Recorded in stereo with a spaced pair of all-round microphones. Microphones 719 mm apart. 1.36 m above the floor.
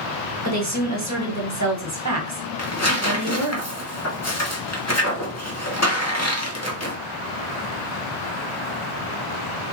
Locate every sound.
0.5 s a woman speaking: 25° right (ahead or behind), 1.5 m
2.6 s tearing paper: 25° left (ahead or behind), 1.2 m